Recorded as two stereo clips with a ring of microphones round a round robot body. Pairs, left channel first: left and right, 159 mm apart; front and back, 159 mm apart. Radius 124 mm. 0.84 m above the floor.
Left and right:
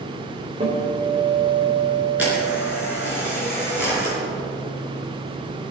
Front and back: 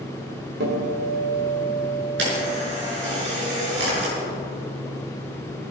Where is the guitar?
160° right, 2.5 m.